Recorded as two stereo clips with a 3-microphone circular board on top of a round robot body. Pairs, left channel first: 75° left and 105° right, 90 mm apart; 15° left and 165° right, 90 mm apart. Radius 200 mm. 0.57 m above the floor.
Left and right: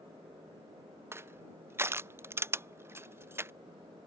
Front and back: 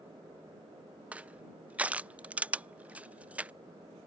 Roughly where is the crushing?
Right.